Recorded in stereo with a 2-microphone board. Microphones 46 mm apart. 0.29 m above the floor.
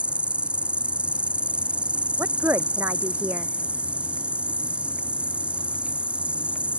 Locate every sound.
0.0 s an insect: 25° right (ahead or behind)
2.2 s a woman speaking: 50° right (ahead or behind)